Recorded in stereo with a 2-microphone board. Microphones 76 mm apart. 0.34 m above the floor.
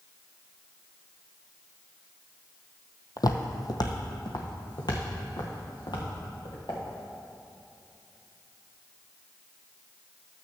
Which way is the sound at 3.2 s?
55° left (ahead or behind).